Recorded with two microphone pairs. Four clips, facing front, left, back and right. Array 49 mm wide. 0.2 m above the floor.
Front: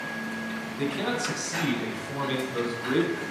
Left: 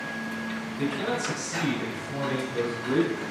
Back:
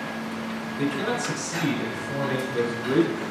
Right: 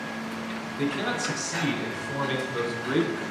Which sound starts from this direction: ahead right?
A man speaking, at 0.8 s.